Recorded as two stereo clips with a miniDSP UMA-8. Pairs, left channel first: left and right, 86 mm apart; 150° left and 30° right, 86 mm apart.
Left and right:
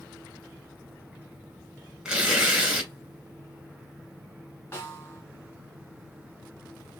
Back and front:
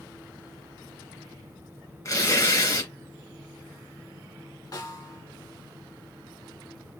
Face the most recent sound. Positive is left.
turn(degrees=145)